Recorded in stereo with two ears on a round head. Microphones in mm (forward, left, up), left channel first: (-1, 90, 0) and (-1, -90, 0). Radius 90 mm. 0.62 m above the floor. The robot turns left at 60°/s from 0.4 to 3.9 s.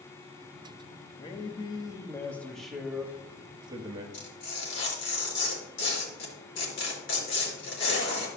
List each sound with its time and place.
1.2 s a man speaking: 25° left (ahead or behind), 1.2 m; by 4.0 s 25° right (ahead or behind), 1.2 m
4.1 s tearing paper: 65° left (ahead or behind), 4 m